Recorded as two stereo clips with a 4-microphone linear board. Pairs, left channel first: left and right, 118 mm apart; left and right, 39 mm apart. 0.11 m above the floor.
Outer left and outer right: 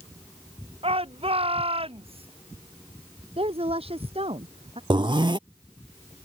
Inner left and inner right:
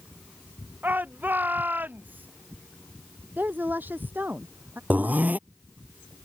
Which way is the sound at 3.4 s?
55° right (ahead or behind).